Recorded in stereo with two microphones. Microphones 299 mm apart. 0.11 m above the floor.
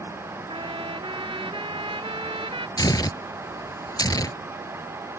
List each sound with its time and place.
0.5 s a trumpet: 20° right (ahead or behind)
2.8 s tearing paper: 15° left (ahead or behind)